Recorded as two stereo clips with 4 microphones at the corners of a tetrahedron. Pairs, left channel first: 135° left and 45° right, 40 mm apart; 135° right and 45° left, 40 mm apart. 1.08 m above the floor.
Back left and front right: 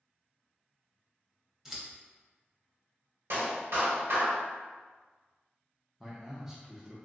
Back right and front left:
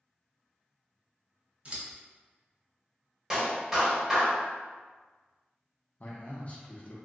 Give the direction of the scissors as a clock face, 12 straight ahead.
11 o'clock.